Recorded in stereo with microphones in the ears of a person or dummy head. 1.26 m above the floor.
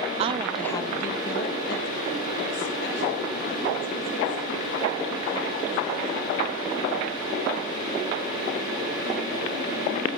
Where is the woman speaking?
40° right (ahead or behind), 0.5 m; by 6.6 s 75° left (ahead or behind), 5.5 m.